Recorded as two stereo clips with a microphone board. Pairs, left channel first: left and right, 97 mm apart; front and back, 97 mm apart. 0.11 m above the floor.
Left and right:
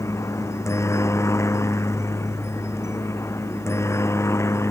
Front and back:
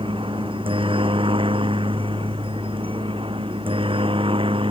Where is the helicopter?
150° left.